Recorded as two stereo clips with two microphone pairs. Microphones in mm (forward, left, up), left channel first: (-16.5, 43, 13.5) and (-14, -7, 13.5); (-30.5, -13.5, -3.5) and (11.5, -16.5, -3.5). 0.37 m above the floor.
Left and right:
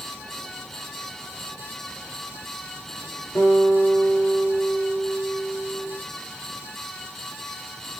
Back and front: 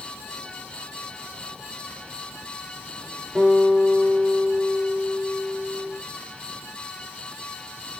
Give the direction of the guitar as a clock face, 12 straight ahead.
9 o'clock.